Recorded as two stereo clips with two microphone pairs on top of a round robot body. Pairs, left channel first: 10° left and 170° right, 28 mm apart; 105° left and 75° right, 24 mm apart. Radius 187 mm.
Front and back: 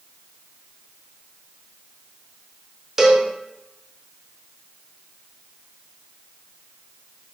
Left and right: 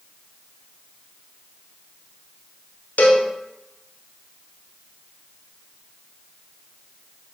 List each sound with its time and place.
3.0 s a cowbell: 115° left, 0.8 m